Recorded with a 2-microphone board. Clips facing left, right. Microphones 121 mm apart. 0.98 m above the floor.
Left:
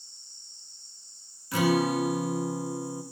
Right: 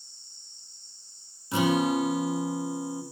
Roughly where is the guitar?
Right.